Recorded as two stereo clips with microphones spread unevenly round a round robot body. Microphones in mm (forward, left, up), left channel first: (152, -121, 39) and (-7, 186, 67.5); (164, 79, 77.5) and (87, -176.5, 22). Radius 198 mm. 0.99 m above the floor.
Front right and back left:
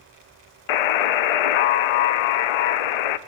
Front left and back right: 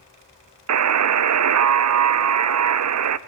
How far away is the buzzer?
About 0.7 m.